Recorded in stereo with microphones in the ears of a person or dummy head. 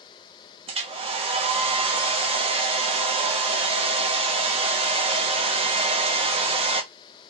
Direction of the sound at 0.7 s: 20° right (ahead or behind).